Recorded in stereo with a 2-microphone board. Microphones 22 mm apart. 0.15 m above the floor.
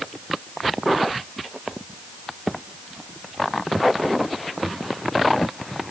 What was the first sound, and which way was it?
Only background noise.